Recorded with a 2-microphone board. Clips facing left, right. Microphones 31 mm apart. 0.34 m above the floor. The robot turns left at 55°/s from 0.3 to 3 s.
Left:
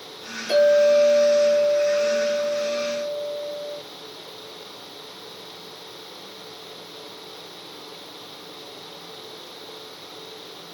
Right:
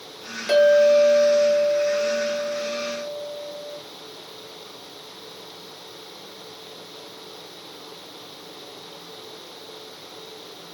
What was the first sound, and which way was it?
A clink, 80° right.